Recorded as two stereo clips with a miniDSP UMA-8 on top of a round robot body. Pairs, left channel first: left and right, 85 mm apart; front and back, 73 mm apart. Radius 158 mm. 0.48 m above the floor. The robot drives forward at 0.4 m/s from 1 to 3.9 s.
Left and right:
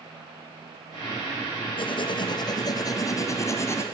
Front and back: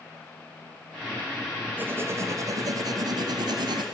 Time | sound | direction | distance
1.8 | writing | 110° left | 0.7 m